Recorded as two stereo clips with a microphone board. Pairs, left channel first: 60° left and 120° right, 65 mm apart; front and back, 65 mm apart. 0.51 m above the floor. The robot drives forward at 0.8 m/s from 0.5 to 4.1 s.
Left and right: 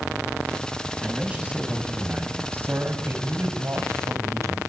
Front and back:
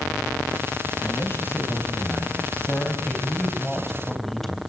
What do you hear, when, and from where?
1.0 s a man speaking: 50° right, 4 m; by 4.6 s 85° right, 3.5 m